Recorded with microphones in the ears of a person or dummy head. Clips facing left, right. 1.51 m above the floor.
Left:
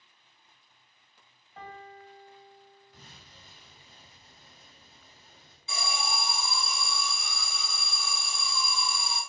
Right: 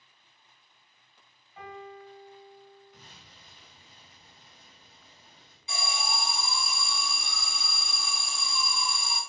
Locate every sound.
1.6 s a piano: 40° left (ahead or behind), 0.8 m
2.9 s an explosion: 30° left (ahead or behind), 1.3 m
5.7 s an alarm: 10° right (ahead or behind), 0.9 m